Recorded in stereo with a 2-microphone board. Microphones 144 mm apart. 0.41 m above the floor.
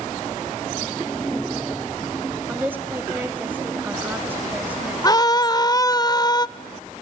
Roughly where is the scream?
Left.